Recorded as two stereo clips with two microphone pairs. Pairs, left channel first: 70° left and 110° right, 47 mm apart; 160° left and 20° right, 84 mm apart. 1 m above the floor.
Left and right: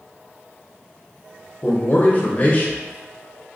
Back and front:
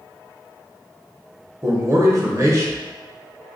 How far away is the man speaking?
About 0.9 m.